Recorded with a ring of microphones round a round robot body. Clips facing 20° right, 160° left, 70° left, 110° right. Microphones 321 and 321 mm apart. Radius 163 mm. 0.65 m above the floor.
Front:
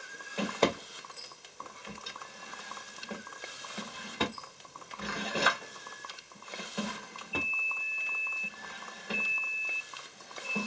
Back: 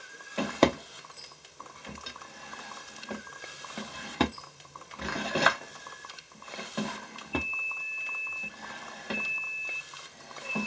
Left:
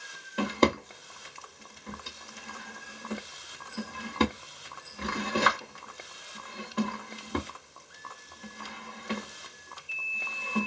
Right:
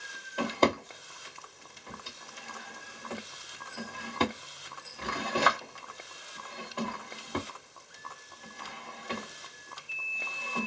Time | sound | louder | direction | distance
0.4 | a drawer | back 4 dB, left 2 dB | 130° left | 0.8 m